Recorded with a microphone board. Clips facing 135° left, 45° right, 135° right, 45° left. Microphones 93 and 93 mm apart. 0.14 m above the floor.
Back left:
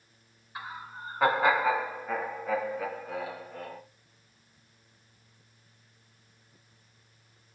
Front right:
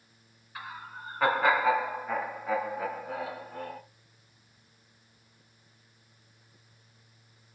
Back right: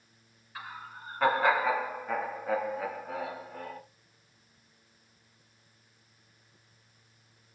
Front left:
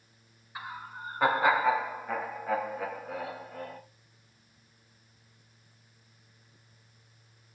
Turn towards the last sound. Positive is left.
turn(degrees=-65)